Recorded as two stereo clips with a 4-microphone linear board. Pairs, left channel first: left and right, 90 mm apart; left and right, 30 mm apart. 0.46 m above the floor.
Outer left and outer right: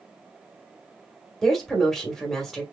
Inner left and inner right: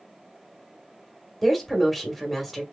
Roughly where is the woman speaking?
Centre.